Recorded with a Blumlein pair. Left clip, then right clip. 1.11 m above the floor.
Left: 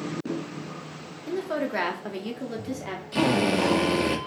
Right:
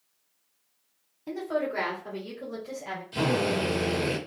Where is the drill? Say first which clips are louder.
Left 3 dB; 65° left, 0.7 m.